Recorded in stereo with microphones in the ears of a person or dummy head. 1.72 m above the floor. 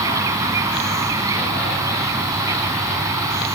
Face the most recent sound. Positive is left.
turn(degrees=-20)  # may be behind; listen again after turning